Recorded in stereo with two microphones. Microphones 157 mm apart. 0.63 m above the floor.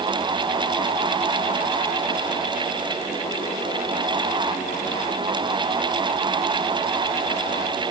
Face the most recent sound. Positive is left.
No sound to turn to.